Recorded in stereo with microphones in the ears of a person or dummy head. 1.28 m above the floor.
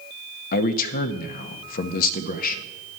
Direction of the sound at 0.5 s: 55° left (ahead or behind).